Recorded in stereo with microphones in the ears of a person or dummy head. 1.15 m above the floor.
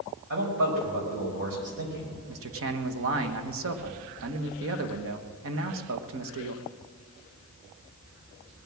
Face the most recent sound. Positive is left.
turn(degrees=-70)  # may be behind; listen again after turning